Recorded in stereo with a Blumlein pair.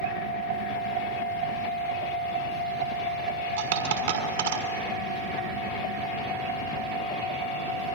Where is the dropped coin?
60° right, 6 m.